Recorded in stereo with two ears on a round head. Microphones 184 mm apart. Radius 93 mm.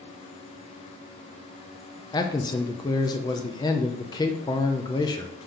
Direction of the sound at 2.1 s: 20° left (ahead or behind).